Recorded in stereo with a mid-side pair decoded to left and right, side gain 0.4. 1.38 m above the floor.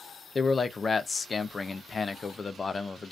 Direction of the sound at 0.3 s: 35° left.